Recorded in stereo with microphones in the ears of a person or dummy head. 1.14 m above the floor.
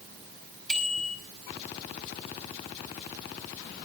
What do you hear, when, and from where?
0.7 s a bicycle bell: centre (ahead or behind), 5 m